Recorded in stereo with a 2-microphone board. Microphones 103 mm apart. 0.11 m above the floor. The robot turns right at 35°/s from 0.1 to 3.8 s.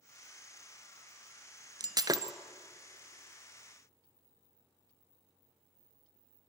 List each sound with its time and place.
1.8 s breaking glass: 40° right (ahead or behind), 0.7 m; by 2.3 s 35° right (ahead or behind), 0.7 m